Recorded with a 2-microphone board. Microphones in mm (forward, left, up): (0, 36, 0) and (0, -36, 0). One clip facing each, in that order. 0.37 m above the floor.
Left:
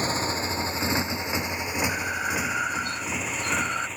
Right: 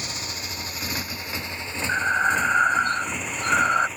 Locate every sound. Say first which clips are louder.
0.0 s a motorcycle: left 8 dB; 35° left (ahead or behind); by 4.0 s 5° right (ahead or behind)
1.9 s breathing: right 7 dB; 45° right (ahead or behind)